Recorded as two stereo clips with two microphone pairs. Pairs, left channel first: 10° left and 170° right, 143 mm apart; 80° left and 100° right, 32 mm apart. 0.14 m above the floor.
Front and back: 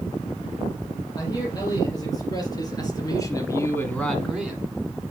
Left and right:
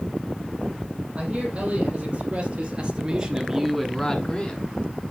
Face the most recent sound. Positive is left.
turn(degrees=110)